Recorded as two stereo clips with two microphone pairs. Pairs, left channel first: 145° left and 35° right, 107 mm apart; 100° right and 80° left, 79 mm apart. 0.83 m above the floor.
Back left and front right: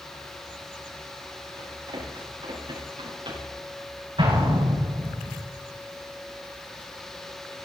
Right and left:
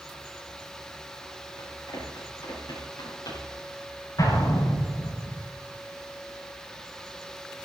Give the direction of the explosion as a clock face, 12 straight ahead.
2 o'clock.